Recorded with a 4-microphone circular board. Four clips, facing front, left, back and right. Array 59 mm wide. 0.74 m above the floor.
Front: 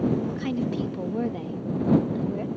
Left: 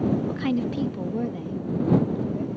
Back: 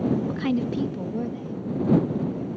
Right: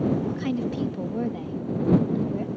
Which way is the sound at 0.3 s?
135° left.